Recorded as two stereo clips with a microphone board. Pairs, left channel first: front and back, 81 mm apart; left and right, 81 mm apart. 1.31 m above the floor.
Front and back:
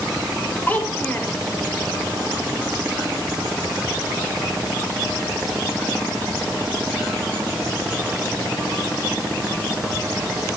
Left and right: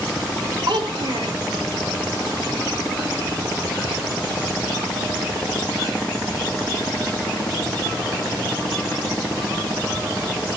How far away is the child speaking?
About 2.5 m.